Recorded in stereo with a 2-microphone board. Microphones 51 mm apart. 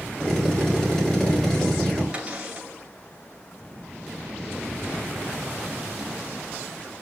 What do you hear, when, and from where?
0.2 s a drill: 15° left (ahead or behind), 4.5 m
2.1 s a cupboard door: 25° right (ahead or behind), 2.5 m